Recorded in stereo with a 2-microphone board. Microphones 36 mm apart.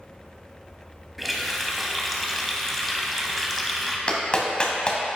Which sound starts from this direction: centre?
A running tap, at 1.2 s.